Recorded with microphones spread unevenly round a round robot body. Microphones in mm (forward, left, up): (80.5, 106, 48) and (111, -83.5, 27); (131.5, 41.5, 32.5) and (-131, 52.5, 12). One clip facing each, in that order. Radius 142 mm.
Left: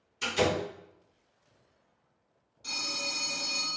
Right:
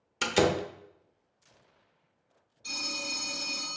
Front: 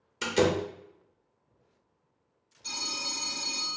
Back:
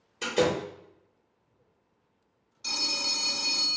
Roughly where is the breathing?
I don't hear breathing.